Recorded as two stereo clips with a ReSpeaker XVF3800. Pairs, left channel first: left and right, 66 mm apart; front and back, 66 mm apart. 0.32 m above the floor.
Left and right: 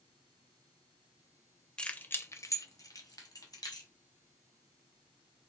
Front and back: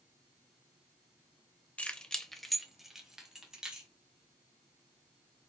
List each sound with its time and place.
1.8 s keys jangling: 35° left, 0.5 m; by 3.9 s 100° left, 1.5 m